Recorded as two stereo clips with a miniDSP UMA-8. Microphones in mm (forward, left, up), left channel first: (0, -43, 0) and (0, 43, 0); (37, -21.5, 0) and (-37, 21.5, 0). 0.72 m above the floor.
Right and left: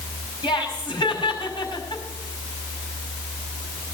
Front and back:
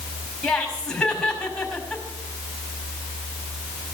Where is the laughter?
110° right, 5.5 m.